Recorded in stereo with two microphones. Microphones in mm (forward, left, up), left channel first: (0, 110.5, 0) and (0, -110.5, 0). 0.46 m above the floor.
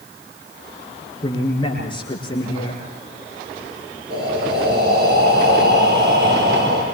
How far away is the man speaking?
About 7.5 m.